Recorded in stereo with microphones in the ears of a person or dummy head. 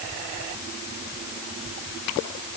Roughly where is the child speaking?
No child speaking in this recording.